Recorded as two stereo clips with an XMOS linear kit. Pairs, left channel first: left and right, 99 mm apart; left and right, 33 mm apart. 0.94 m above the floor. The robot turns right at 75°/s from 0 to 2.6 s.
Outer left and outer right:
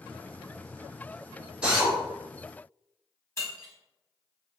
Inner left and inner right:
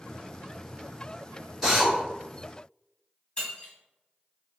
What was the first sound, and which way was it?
A drill, 10° right (ahead or behind).